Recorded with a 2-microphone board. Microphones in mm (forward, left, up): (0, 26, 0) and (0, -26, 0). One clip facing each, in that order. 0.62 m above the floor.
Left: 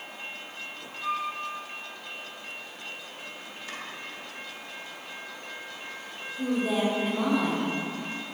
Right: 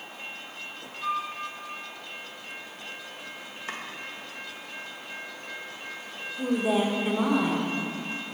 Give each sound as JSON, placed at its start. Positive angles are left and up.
{"t": 1.0, "sound": "a flute", "side_deg": -25, "distance_m": 1.6}
{"t": 3.7, "sound": "chopping", "side_deg": -35, "distance_m": 1.1}
{"t": 6.4, "sound": "a woman speaking", "side_deg": -15, "distance_m": 1.5}